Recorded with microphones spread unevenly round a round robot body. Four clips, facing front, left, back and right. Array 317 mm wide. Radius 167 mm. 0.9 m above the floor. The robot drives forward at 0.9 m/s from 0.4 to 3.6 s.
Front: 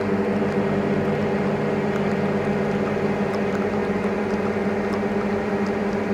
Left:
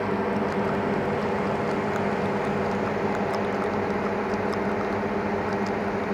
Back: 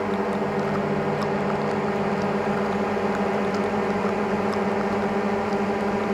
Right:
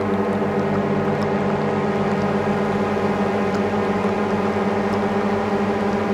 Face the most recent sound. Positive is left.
turn(degrees=-75)